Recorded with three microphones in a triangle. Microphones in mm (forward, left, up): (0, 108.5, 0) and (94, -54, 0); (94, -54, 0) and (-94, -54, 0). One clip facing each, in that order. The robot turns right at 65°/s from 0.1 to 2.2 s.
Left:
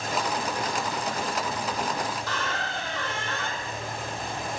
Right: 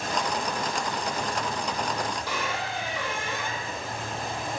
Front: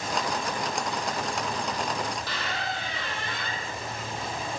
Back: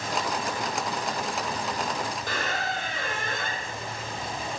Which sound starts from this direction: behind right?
A squeak, at 2.3 s.